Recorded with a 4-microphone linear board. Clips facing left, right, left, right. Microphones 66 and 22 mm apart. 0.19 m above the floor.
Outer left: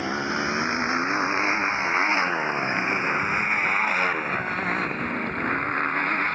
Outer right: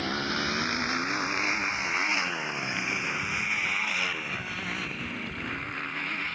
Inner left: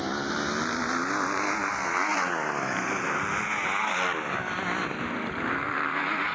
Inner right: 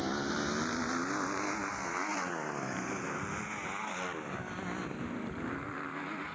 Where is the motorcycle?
15° left (ahead or behind); by 6.4 s 45° left (ahead or behind).